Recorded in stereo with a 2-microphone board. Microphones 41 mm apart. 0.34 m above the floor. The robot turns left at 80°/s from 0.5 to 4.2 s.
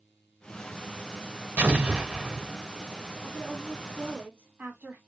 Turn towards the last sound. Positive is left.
turn(degrees=-60)